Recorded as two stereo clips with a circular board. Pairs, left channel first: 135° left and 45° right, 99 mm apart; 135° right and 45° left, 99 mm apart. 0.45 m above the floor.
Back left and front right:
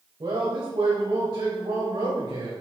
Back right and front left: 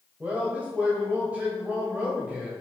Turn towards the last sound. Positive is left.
turn(degrees=-25)